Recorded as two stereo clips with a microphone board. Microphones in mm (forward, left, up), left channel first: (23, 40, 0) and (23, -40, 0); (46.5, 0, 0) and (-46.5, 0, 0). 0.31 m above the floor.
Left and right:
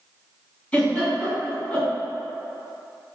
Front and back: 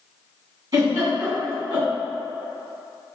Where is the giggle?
160° left, 1.8 m.